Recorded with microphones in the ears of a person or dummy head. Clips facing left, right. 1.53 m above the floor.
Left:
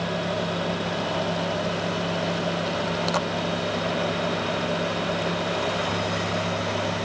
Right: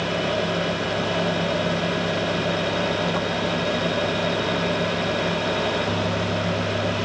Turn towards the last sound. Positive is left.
No sound to turn to.